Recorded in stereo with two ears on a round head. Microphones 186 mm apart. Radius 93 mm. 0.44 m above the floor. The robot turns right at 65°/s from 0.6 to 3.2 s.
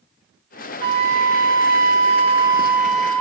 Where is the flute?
140° right, 0.6 m; by 3.2 s 15° left, 0.6 m.